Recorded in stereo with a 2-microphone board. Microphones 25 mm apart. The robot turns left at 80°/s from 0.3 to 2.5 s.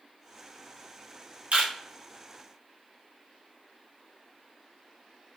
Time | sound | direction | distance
1.5 | a camera shutter | 70° right (ahead or behind) | 1.2 m